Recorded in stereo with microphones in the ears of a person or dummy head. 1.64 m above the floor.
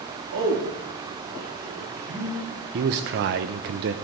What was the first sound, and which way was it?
A man speaking, 70° right (ahead or behind).